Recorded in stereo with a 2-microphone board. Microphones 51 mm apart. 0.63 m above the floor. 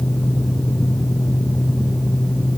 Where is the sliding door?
No sliding door in this recording.